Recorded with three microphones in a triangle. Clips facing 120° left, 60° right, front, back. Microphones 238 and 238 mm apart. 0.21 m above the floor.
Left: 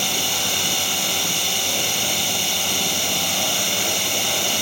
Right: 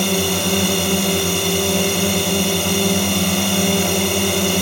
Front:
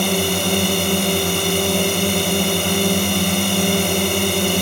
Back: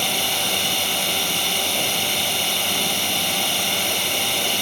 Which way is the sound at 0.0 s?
35° right.